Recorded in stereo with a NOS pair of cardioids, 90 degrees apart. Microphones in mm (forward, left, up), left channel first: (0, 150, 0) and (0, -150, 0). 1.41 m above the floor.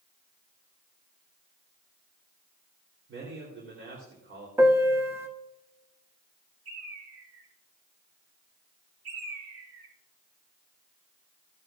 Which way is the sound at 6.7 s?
50° right.